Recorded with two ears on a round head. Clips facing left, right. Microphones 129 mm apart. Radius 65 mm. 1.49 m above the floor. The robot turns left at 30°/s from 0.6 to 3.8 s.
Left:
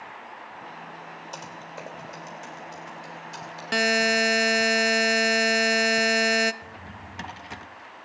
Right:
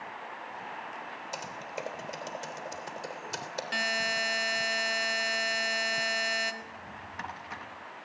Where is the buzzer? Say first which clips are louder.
Left 13 dB; 60° left (ahead or behind), 0.8 m; by 6.5 s 65° left (ahead or behind), 0.8 m.